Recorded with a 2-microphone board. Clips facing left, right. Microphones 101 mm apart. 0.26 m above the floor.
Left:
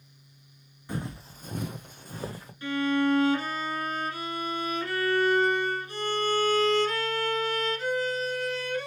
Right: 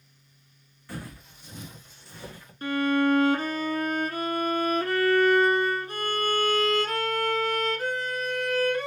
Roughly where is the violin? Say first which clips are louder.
Right 2 dB; right.